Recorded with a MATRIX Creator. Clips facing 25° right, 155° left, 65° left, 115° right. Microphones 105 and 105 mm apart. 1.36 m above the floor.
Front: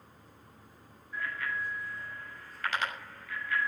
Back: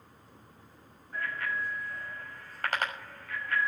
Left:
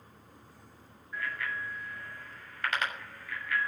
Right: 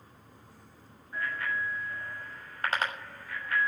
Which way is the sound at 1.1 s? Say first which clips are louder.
Back 2 dB, right 3 dB; 165° right.